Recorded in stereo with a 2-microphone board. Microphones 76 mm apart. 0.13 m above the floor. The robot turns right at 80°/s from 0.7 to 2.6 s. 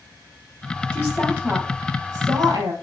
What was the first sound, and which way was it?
A woman speaking, 45° left (ahead or behind).